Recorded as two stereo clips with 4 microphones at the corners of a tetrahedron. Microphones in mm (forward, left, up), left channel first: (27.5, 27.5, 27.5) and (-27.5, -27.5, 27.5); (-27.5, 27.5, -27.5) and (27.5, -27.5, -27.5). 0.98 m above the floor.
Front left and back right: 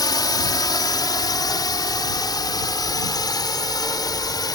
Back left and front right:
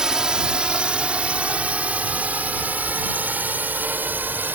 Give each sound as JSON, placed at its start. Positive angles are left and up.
{"t": 0.0, "sound": "a drone", "azimuth_deg": 35}